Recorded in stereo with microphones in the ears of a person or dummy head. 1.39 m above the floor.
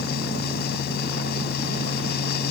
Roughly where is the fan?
Left.